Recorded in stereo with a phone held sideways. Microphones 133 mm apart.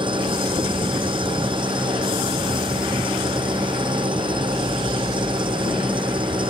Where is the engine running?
40° right (ahead or behind).